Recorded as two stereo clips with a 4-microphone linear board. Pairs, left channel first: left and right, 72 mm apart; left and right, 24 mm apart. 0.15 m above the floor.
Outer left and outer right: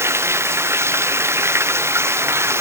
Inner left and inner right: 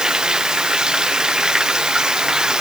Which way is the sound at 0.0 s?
35° right (ahead or behind).